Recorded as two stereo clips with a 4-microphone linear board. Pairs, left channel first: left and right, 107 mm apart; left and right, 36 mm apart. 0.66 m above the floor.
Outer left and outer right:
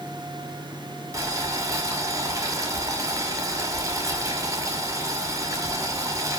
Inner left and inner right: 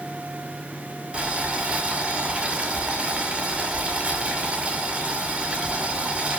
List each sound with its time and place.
1.1 s boiling: 30° right (ahead or behind), 2 m